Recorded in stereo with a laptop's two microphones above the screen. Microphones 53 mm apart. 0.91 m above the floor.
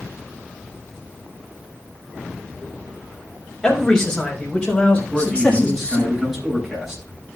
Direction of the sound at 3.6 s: 10° left (ahead or behind).